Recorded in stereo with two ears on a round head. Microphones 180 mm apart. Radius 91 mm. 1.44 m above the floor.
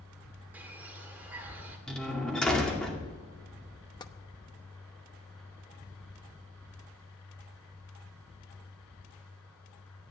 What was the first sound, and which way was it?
A bird, 10° right (ahead or behind).